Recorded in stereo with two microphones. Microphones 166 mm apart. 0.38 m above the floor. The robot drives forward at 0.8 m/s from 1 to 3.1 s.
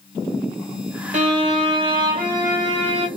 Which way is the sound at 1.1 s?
45° right (ahead or behind).